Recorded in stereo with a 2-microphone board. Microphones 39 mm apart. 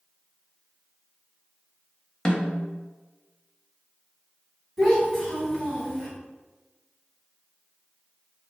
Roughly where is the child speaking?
Centre.